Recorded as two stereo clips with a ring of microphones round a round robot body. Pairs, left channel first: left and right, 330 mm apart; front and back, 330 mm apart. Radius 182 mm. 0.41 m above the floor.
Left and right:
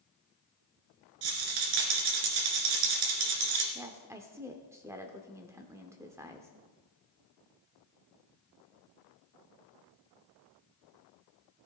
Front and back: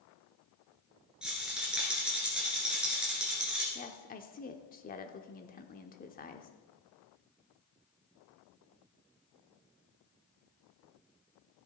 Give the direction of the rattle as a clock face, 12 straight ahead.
3 o'clock.